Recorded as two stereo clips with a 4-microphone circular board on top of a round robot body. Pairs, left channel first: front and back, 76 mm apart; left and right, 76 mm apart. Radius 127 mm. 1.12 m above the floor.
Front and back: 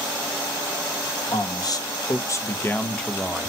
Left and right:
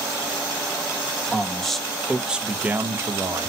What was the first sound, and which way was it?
A man speaking, 10° left.